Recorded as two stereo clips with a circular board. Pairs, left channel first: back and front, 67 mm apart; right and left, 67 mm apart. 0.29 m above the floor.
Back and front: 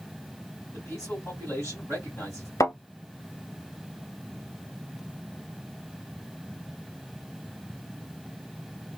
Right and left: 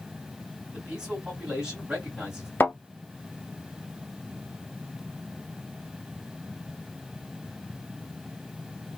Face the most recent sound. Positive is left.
turn(degrees=-150)